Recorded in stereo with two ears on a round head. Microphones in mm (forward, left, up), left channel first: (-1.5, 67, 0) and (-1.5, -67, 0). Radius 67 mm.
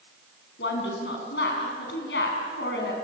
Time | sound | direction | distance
0.6 | a woman speaking | 80° left | 6.5 m